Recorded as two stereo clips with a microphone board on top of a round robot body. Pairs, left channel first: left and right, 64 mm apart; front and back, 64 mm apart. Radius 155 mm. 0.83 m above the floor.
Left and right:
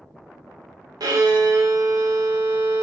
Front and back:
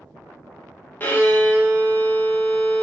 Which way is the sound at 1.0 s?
65° right.